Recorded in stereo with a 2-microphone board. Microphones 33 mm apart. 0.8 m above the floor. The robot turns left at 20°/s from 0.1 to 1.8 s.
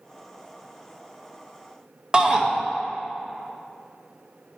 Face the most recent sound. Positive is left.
turn(degrees=-30)  # may be behind; listen again after turning